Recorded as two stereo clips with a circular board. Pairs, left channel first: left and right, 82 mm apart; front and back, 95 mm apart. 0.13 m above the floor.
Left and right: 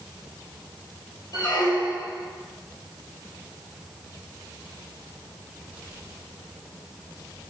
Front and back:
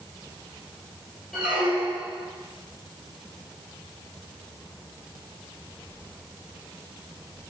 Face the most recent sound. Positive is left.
turn(degrees=100)